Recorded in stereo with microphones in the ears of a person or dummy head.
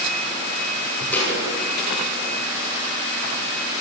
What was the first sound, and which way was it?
A thud, 10° left (ahead or behind).